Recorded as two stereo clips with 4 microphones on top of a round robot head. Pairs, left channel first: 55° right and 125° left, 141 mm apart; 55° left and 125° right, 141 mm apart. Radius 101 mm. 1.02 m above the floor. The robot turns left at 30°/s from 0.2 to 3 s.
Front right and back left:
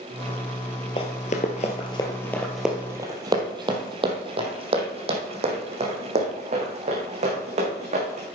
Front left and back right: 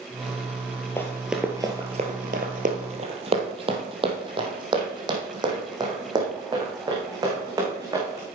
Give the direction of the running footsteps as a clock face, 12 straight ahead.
12 o'clock.